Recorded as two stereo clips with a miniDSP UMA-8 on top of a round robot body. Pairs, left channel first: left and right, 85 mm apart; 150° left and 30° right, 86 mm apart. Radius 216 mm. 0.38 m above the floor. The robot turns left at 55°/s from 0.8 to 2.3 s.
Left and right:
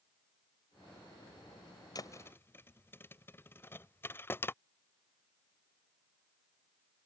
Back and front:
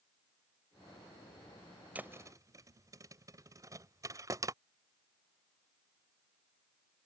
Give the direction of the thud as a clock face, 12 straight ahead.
11 o'clock.